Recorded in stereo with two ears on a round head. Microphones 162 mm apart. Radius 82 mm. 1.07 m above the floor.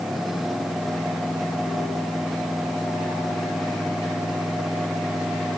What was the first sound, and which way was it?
Only background noise.